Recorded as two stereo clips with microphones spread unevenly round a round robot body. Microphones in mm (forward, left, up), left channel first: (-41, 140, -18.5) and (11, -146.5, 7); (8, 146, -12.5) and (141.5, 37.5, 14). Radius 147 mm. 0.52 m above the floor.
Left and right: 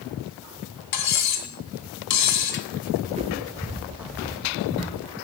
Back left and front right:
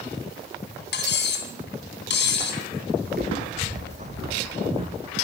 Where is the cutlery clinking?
130° left, 2.5 m.